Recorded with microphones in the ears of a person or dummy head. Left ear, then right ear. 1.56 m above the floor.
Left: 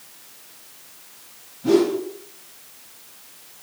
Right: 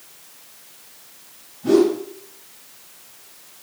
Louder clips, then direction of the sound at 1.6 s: Right 2 dB; 10° right (ahead or behind).